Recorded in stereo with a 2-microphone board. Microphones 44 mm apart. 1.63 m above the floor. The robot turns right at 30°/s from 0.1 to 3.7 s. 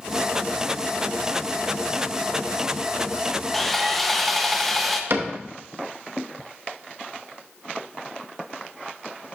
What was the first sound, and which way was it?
Sawing, 5° left (ahead or behind).